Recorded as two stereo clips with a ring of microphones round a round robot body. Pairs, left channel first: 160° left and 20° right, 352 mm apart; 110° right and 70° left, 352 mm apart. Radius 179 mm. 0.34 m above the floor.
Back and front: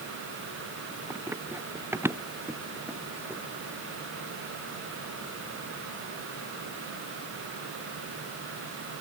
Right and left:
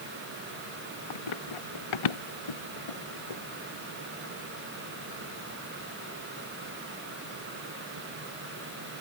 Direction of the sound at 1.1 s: 105° right.